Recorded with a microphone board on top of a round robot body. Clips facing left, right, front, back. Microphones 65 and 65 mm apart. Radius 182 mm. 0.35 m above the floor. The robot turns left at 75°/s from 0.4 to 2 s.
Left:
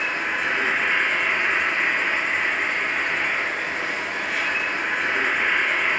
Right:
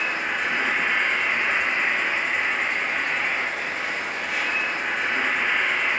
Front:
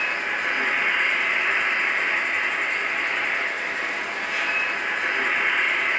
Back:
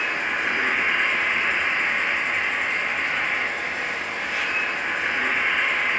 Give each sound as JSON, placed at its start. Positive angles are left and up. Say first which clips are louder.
{"t": 0.0, "sound": "an insect", "louder": "left 1 dB, back 1 dB", "azimuth_deg": 175, "distance_m": 1.5}